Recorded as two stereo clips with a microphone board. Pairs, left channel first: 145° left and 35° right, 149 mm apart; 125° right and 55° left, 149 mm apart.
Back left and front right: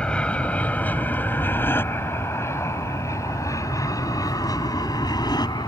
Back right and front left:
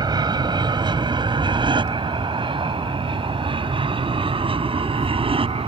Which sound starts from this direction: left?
An aircraft, at 0.0 s.